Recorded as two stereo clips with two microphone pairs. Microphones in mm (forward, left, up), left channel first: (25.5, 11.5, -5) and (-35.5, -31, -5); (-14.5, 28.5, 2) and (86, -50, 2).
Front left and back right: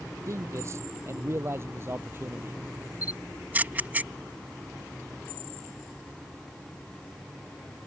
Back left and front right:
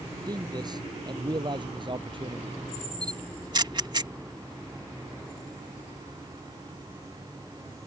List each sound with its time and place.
0.3 s a man speaking: 95° right; by 2.6 s 85° right
3.0 s a camera shutter: 80° right